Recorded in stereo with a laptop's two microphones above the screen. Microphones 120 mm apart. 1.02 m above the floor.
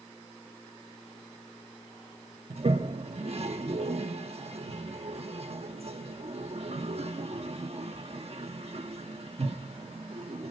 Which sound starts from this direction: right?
A toilet flushing, at 2.5 s.